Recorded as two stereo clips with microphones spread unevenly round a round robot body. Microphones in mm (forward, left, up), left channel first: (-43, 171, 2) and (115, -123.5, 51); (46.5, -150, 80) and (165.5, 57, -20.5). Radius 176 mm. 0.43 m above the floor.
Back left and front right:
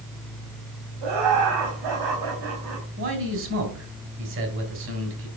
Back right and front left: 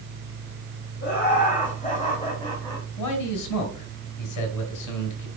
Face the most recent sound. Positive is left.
turn(degrees=-120)